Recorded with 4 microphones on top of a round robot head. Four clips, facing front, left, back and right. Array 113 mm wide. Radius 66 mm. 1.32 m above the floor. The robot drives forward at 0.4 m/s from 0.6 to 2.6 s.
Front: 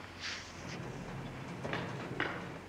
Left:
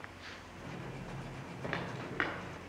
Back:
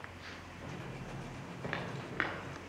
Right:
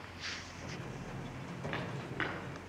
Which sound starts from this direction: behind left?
Footsteps, at 1.6 s.